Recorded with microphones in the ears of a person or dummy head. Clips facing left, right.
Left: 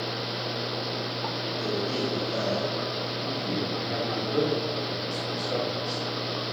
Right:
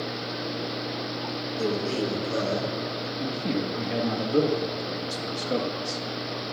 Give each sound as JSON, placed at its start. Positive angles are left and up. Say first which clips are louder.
{"t": 1.6, "sound": "a man speaking", "louder": "right 3 dB", "side_deg": -75, "distance_m": 4.5}
{"t": 3.2, "sound": "a man speaking", "louder": "right 4 dB", "side_deg": -55, "distance_m": 1.3}